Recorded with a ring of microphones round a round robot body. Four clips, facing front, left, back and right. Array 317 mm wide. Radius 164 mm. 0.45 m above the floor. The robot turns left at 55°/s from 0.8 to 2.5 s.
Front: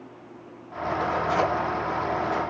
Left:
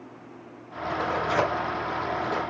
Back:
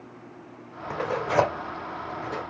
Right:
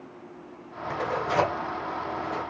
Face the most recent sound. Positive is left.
turn(degrees=105)